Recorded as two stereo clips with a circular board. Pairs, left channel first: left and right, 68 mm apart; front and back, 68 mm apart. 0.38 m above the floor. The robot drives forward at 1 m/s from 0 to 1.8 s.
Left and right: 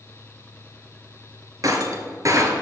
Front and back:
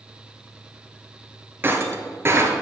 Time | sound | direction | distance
1.6 | breaking glass | 120° right | 1.4 m